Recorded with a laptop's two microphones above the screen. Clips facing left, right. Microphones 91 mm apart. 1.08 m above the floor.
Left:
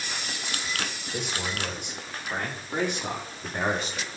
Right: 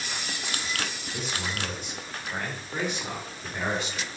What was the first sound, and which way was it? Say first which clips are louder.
A man speaking: left 2 dB; 75° left (ahead or behind).